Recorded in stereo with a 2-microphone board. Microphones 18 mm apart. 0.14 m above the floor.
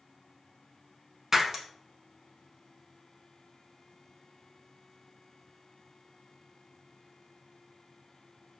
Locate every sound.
1.3 s breaking glass: 25° right (ahead or behind), 0.5 m